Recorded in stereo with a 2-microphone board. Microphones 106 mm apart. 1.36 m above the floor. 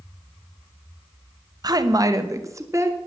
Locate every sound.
1.6 s a woman speaking: 40° right (ahead or behind), 1.1 m; by 3.0 s 25° right (ahead or behind), 2 m